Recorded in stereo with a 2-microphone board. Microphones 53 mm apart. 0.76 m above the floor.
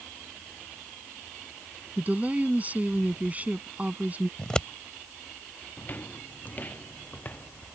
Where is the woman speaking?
30° right (ahead or behind).